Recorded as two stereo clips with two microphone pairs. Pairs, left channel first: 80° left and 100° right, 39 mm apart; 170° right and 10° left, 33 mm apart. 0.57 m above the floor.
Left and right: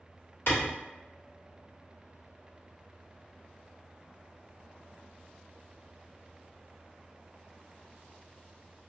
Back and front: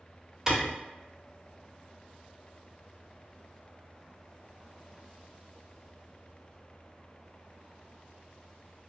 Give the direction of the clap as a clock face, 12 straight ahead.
9 o'clock.